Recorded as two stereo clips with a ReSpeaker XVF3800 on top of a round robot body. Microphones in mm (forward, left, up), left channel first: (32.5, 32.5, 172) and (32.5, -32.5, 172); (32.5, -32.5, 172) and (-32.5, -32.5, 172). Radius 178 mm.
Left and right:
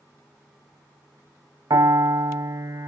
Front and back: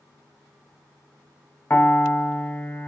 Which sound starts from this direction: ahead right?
A piano, at 1.7 s.